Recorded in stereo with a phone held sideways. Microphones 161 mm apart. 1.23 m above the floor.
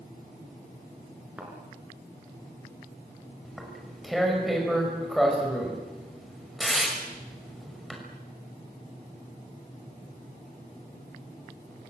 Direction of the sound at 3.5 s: Centre (ahead or behind).